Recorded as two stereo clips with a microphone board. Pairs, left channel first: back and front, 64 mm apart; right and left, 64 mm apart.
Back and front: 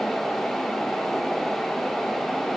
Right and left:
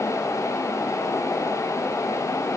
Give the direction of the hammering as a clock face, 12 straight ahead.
No hammering in this recording.